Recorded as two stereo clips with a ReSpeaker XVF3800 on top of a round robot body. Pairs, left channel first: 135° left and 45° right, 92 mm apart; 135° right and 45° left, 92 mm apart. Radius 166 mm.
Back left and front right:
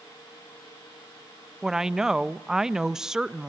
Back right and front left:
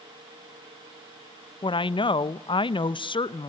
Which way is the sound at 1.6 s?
130° right.